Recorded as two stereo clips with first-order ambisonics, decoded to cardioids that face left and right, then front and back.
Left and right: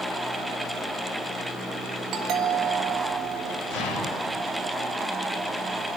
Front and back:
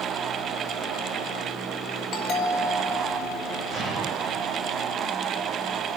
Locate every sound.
2.1 s a doorbell: 40° right, 3 m
3.7 s an explosion: 70° left, 4 m